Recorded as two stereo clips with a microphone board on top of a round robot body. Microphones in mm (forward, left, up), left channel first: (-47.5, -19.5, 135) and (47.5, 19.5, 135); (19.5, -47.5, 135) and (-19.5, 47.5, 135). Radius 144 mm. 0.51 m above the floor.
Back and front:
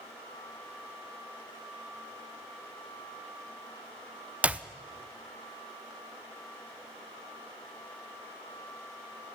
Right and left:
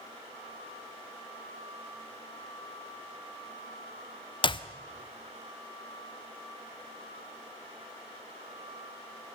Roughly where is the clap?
Ahead right.